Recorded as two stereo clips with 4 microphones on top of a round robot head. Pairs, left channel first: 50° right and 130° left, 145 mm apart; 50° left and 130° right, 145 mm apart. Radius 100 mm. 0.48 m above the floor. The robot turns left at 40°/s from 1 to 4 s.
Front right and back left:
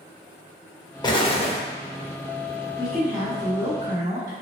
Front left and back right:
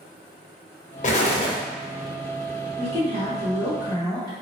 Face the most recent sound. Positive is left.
turn(degrees=180)